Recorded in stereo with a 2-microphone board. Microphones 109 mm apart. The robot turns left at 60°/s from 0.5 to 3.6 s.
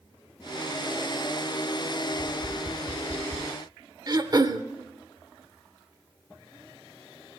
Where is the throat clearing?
40° right (ahead or behind), 0.6 m.